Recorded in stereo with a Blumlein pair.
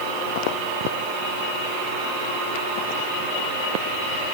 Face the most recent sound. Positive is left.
No sound to turn to.